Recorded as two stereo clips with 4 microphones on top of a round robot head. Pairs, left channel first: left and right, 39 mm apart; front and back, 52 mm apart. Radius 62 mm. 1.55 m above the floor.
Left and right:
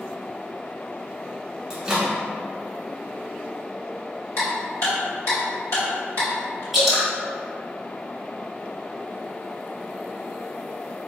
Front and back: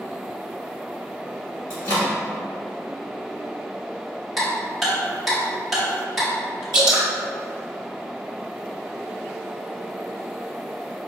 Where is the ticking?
90° left, 1.2 m.